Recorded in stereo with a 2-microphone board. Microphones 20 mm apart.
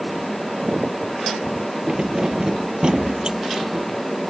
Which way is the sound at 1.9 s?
45° right (ahead or behind).